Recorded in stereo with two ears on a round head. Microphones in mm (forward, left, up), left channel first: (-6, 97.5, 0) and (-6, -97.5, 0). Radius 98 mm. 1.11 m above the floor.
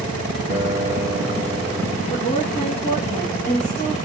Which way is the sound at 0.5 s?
25° left (ahead or behind).